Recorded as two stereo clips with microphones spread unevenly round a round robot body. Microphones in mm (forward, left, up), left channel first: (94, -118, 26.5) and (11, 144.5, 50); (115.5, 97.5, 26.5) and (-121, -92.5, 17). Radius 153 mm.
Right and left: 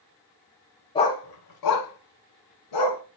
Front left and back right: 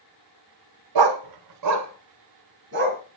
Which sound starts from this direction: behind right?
A dog barking, at 0.9 s.